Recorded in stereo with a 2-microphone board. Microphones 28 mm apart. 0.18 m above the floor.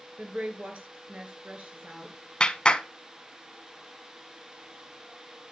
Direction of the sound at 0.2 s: 55° right (ahead or behind).